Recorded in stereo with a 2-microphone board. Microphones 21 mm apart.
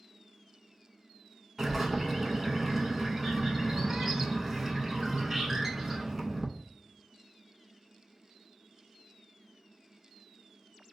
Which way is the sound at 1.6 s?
20° right (ahead or behind).